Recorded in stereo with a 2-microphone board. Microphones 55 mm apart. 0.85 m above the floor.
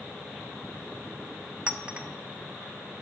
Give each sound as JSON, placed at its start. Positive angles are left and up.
{"t": 1.7, "sound": "a clink", "side_deg": -20, "distance_m": 0.6}